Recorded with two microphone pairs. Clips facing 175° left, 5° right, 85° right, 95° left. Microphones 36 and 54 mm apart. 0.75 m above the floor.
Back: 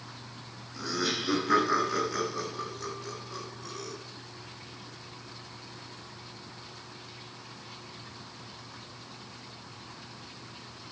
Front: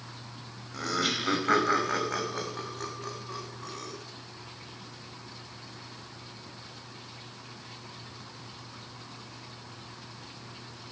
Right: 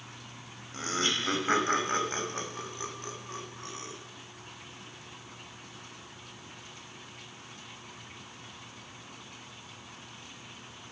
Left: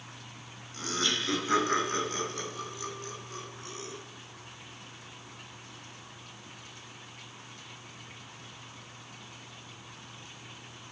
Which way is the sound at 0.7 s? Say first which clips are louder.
Front 2 dB, right 1 dB; 30° right.